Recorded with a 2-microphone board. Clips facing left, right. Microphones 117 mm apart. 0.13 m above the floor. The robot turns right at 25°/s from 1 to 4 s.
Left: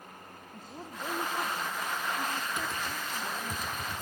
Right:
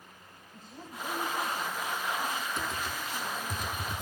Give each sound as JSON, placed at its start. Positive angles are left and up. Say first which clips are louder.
{"t": 0.5, "sound": "a woman speaking", "louder": "left 1 dB", "azimuth_deg": 50, "distance_m": 6.0}
{"t": 2.6, "sound": "typing on a keyboard", "louder": "even", "side_deg": 5, "distance_m": 1.2}